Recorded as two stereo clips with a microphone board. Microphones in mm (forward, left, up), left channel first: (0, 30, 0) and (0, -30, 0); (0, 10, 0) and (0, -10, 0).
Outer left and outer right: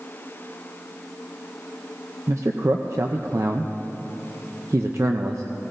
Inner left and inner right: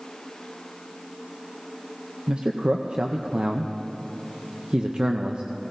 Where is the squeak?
No squeak in this recording.